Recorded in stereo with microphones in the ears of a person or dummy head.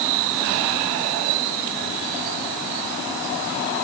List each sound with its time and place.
Only background noise.